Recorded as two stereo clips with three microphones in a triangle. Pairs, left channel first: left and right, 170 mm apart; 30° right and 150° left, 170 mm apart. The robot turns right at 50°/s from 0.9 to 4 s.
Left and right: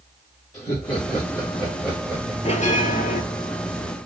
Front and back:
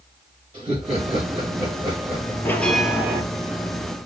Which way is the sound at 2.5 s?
45° left.